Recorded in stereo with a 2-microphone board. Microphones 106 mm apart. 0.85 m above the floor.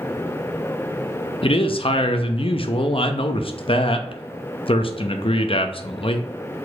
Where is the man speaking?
55° left (ahead or behind), 0.6 m.